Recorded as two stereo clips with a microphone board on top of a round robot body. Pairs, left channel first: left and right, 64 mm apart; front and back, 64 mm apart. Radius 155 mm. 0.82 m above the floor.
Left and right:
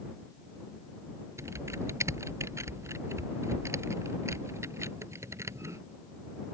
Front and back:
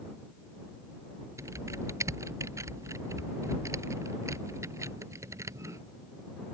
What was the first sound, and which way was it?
Typing on a keyboard, 135° right.